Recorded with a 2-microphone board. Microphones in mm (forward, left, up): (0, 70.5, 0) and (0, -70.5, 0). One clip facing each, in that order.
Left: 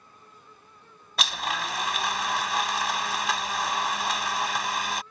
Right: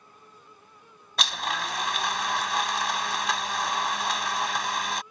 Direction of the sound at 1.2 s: Centre (ahead or behind).